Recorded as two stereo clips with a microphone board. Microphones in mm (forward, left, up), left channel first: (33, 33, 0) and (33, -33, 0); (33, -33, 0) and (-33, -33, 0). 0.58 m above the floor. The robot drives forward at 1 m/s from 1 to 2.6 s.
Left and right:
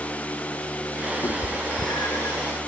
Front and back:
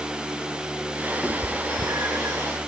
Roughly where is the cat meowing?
Left.